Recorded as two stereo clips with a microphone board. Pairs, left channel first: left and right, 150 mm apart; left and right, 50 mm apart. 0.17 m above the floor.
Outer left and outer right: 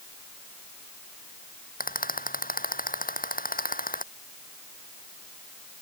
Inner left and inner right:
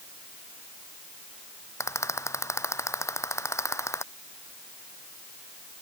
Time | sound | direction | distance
1.8 | a rattle | 70° left (ahead or behind) | ?